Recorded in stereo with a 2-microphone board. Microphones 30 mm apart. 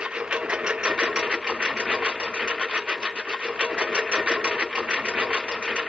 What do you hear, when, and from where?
0.0 s a lawn mower: 35° right (ahead or behind)